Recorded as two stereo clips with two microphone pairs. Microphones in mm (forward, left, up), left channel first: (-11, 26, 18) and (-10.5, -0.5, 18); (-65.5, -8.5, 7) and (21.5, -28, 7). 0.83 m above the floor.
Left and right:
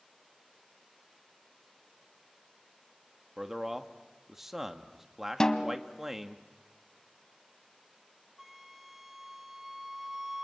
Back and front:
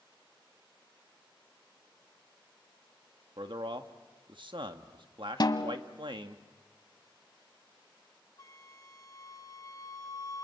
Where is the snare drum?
150° left, 1.0 m.